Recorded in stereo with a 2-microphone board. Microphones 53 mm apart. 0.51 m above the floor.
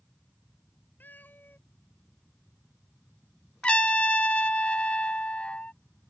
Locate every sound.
1.0 s a cat meowing: 35° left (ahead or behind)
3.6 s a trumpet: 25° left (ahead or behind)